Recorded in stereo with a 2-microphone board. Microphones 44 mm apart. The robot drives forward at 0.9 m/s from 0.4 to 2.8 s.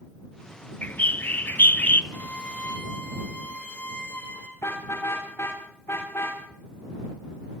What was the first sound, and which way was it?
A bird, 35° left (ahead or behind).